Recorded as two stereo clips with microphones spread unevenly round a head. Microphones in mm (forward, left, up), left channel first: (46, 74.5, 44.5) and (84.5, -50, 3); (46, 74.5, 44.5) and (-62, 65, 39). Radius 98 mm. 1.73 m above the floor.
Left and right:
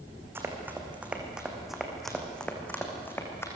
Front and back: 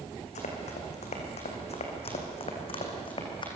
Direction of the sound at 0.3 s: 5° left.